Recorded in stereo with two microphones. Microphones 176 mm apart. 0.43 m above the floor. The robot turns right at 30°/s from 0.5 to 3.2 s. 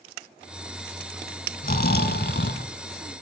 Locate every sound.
1.6 s snoring: 55° left, 1.4 m; by 2.7 s 85° left, 1.4 m